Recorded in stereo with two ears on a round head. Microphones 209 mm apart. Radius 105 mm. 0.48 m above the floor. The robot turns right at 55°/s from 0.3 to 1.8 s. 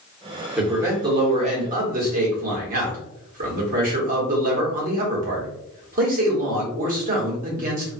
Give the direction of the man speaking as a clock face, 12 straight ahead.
6 o'clock.